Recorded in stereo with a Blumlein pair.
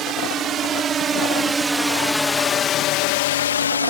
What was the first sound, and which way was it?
A drone, 30° right.